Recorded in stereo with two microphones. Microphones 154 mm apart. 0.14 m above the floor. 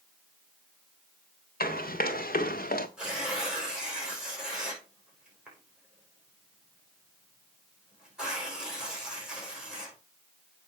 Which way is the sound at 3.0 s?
5° right (ahead or behind).